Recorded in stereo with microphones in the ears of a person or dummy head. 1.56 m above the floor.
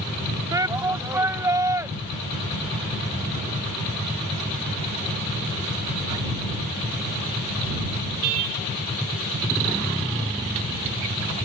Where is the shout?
15° right (ahead or behind); by 1.9 s 10° right (ahead or behind).